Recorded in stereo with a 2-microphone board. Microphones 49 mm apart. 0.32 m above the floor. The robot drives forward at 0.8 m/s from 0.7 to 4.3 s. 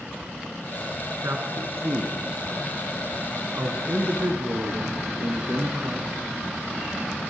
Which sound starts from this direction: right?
A man speaking, at 1.2 s.